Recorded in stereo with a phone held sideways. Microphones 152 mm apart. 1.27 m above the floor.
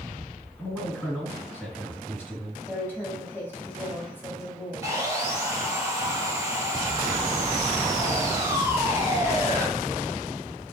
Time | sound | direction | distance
0.6 | a man speaking | 10° left (ahead or behind) | 2 m
2.7 | a woman speaking | 15° left (ahead or behind) | 1.9 m
4.8 | sawing | 20° right (ahead or behind) | 2 m